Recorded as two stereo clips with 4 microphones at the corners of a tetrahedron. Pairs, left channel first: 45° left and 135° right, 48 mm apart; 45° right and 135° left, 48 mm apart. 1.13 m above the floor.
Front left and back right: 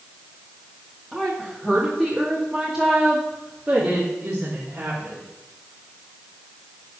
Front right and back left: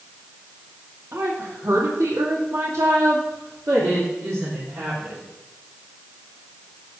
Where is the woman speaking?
125° left, 2.5 m; by 5.2 s 165° left, 3.5 m.